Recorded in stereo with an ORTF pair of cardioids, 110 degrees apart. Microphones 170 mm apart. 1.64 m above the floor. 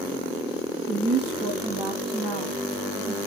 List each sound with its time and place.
0.9 s a woman speaking: 55° right, 0.9 m